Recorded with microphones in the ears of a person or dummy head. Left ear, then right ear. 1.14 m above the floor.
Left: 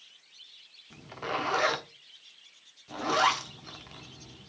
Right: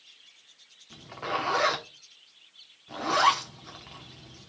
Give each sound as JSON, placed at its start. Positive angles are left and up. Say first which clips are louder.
{"t": 0.9, "sound": "a zipper", "louder": "right 2 dB", "side_deg": 5, "distance_m": 1.0}